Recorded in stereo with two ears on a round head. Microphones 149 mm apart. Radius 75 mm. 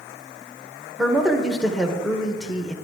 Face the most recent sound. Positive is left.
turn(degrees=0)  # may be behind; listen again after turning